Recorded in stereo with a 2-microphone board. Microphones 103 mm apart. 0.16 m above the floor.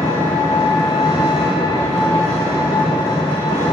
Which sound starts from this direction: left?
An engine running, at 0.0 s.